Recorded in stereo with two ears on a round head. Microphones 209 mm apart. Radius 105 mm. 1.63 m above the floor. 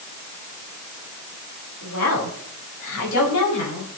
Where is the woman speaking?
75° left (ahead or behind), 6.5 m; by 3.9 s 85° left, 7.5 m.